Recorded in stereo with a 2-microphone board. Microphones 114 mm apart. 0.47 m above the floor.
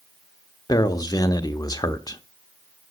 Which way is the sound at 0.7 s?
35° left (ahead or behind).